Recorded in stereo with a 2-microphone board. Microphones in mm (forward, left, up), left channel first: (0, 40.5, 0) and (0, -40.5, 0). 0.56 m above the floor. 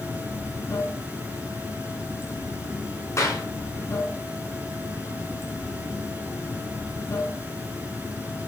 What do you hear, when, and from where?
0.0 s running water: 40° left (ahead or behind), 4.5 m
3.2 s a clap: 40° left (ahead or behind), 5.5 m